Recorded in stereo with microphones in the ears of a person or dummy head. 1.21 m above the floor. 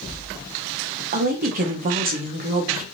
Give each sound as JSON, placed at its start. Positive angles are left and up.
{"t": 1.1, "sound": "a woman speaking", "side_deg": -45, "distance_m": 0.5}